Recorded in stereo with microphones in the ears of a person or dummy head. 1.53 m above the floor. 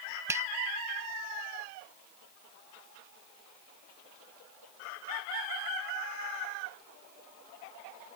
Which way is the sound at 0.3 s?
15° right (ahead or behind).